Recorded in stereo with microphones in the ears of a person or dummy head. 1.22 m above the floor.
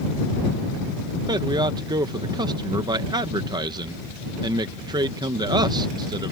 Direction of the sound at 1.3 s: 25° right (ahead or behind).